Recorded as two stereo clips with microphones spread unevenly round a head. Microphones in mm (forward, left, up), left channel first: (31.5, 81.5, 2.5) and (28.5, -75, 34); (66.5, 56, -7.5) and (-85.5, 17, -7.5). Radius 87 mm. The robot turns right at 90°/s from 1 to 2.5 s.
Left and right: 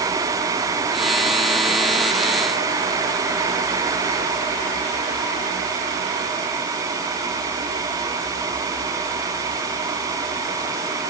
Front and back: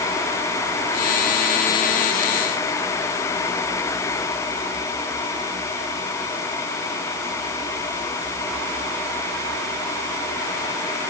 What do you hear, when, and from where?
Only background noise.